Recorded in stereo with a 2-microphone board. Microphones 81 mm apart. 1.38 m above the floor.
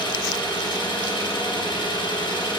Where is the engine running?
75° left (ahead or behind), 3.5 m.